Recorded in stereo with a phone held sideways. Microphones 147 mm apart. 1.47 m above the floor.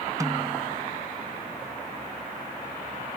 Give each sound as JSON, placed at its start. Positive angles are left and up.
{"t": 0.2, "sound": "a snare drum", "side_deg": -20}